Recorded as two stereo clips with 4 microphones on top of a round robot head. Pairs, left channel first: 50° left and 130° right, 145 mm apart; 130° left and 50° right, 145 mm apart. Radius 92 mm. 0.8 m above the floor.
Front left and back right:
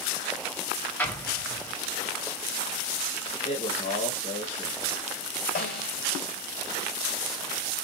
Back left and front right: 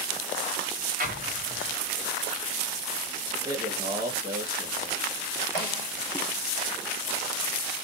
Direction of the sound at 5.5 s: 65° left.